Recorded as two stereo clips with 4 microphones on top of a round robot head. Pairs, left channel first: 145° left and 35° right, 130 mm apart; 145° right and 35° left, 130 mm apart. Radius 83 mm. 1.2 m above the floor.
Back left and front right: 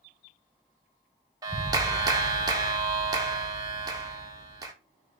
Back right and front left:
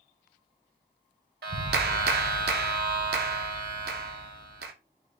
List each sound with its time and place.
1.4 s a clap: 25° left, 0.6 m